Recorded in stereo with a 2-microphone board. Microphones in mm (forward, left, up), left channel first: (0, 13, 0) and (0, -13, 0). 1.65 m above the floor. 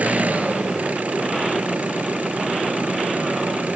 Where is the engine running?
80° right.